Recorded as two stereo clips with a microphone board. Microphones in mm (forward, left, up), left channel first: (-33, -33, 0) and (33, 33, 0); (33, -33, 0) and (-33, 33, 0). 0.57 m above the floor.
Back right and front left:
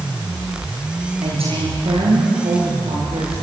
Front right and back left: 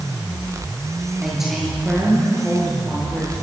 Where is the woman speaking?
50° left, 9 m; by 3.3 s 35° left, 10 m.